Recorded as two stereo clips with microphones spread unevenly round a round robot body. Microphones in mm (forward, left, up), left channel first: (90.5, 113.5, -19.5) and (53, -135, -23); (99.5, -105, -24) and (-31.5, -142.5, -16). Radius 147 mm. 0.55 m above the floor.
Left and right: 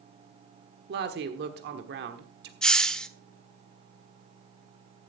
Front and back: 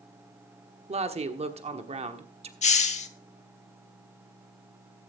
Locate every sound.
0.9 s a woman speaking: 140° right, 1.3 m
2.6 s a hiss: 5° right, 1.0 m